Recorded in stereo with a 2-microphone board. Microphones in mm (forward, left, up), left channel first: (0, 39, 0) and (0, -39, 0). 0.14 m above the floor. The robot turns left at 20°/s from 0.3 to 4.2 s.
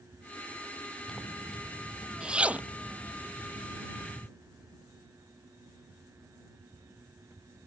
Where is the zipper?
10° left (ahead or behind); by 4.3 s 50° right (ahead or behind).